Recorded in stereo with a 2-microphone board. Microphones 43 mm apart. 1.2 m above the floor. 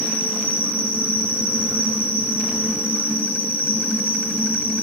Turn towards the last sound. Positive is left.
turn(degrees=75)  # may be behind; listen again after turning